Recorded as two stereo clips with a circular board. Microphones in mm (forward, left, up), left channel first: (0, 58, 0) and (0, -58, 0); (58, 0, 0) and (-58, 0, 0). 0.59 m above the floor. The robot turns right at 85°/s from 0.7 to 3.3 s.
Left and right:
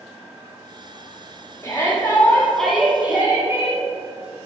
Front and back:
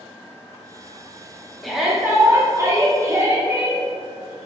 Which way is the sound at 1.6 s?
85° left.